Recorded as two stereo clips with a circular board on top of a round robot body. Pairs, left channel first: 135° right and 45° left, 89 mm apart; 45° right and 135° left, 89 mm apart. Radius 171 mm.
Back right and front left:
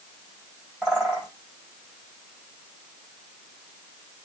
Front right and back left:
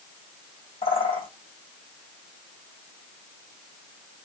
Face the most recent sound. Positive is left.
turn(degrees=-50)